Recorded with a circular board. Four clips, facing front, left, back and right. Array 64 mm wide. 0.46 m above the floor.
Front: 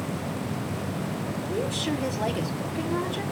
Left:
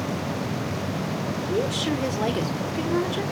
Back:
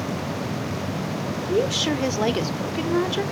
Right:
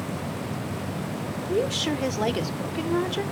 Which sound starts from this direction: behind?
A woman speaking, at 1.5 s.